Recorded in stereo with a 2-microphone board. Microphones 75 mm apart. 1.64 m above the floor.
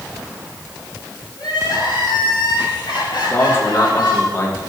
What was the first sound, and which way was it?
Crying, 70° left (ahead or behind).